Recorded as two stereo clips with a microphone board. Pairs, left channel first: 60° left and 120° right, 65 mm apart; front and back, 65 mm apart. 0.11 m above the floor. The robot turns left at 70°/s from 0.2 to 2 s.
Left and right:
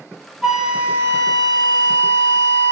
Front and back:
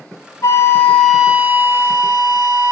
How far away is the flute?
About 0.6 m.